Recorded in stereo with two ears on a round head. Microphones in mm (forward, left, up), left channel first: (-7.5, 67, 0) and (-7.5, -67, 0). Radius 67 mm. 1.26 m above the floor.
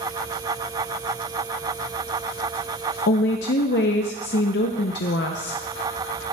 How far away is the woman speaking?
About 0.6 m.